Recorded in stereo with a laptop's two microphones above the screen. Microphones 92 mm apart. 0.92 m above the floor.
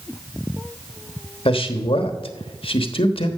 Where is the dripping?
I don't hear dripping.